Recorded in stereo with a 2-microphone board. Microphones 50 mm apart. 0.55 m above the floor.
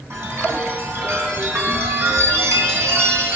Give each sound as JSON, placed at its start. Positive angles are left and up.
{"t": 0.1, "sound": "a chime", "side_deg": -55, "distance_m": 4.5}